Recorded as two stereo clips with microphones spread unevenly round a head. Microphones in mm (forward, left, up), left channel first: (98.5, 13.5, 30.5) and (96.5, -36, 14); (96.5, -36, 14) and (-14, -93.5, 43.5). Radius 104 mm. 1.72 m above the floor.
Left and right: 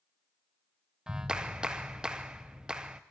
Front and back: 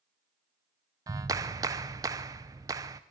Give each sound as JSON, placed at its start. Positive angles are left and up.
{"t": 1.1, "sound": "a clap", "azimuth_deg": 170, "distance_m": 0.7}